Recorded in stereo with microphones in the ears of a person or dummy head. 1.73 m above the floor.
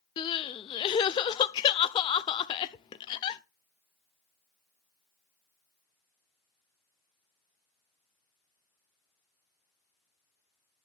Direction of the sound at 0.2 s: 30° left (ahead or behind).